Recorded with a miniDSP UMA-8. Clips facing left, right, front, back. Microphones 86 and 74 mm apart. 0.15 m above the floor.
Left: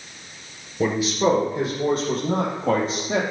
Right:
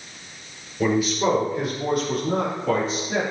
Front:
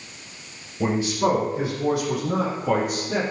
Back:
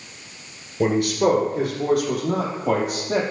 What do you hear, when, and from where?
0.8 s a man speaking: 160° left, 2.5 m; by 3.2 s 140° left, 4 m